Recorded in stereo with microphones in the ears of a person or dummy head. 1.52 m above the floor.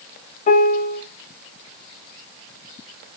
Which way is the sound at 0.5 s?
35° left (ahead or behind).